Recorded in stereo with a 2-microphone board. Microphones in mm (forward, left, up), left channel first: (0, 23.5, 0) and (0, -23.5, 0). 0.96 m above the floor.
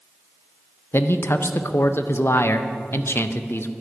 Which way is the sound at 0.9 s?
55° left (ahead or behind).